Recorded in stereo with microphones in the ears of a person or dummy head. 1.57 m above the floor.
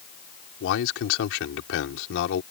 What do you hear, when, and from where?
0.6 s a man speaking: 75° left (ahead or behind)